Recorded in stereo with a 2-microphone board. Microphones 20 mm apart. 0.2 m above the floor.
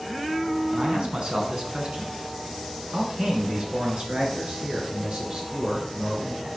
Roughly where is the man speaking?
Right.